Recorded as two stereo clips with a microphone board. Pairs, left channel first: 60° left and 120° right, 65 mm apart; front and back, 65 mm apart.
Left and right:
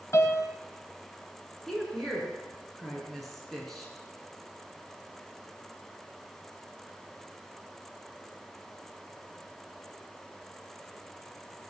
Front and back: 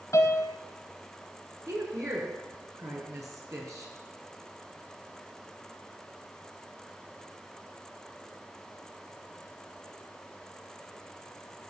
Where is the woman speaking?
145° left, 5.5 m.